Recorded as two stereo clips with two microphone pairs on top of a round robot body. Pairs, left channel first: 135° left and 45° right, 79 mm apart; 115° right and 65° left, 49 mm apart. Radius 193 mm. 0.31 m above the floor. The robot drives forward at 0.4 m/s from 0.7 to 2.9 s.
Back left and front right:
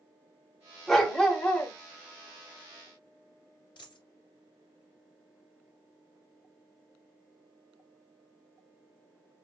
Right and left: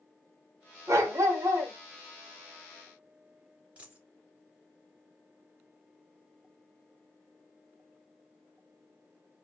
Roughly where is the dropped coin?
Behind left.